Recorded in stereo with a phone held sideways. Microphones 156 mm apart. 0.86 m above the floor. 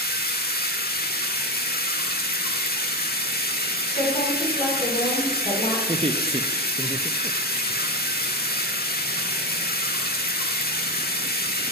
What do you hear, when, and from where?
0.0 s running water: 75° left (ahead or behind), 1.2 m
3.9 s a woman speaking: 55° left (ahead or behind), 3 m
5.9 s laughter: 30° right (ahead or behind), 0.5 m